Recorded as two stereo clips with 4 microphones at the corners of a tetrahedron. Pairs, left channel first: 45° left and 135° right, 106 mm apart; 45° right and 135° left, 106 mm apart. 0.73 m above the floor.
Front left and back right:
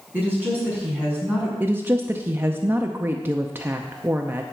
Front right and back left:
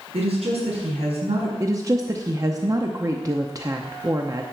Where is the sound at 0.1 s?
150° left, 5 m.